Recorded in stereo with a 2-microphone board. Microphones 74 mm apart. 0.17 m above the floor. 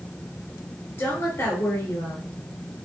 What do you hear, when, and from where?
1.0 s a woman speaking: 25° left (ahead or behind), 2 m